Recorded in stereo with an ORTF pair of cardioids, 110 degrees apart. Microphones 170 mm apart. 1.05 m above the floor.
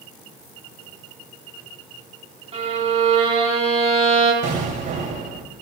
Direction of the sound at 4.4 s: 50° right.